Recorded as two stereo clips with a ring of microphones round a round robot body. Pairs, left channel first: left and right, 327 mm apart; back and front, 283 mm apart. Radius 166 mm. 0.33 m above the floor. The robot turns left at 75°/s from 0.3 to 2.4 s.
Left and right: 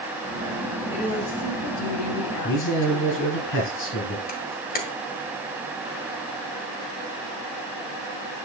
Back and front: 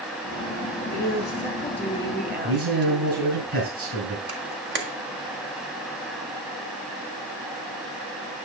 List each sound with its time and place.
0.9 s a woman speaking: 160° left, 2 m; by 3.4 s 45° left, 2 m
2.4 s a man speaking: 35° left, 3.5 m
4.3 s a camera shutter: 35° left, 1.6 m